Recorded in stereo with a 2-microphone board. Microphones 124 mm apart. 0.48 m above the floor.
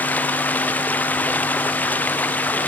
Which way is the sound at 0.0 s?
15° left (ahead or behind).